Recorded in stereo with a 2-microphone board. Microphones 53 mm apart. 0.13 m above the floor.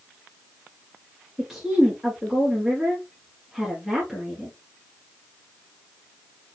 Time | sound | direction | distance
1.4 | a woman speaking | 10° right (ahead or behind) | 1.8 m